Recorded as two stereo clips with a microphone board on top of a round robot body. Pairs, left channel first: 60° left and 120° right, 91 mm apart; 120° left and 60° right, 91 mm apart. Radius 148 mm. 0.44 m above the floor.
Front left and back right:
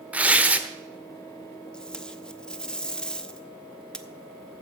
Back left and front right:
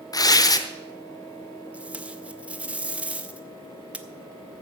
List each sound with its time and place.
0.1 s tearing paper: 165° left, 1.1 m
1.7 s tape being pulled: 5° right, 1.1 m